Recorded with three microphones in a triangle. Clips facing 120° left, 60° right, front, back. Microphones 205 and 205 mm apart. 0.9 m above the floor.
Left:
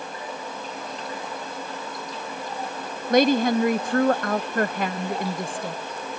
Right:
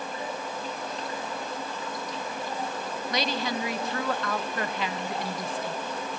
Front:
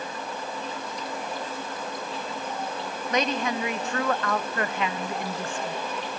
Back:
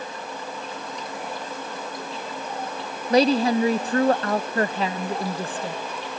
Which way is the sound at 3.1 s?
135° left.